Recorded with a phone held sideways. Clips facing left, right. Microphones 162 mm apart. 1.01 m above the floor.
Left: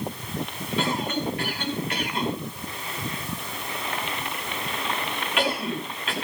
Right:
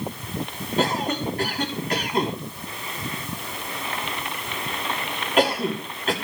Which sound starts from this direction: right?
A cough, at 0.8 s.